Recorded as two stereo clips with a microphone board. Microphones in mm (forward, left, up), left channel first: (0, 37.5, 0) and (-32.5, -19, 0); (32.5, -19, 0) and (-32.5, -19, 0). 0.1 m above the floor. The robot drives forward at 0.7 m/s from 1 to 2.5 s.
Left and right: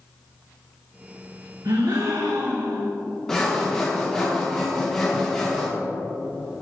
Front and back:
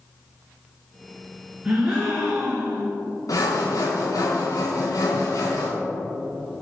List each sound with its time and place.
1.6 s a gasp: 105° right, 2.5 m; by 2.9 s 115° right, 2.5 m
3.3 s sawing: 25° right, 2 m